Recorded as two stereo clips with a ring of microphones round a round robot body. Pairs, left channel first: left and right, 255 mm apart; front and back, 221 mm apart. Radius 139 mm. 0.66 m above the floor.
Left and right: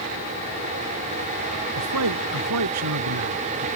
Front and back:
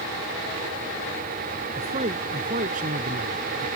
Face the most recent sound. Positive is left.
turn(degrees=-125)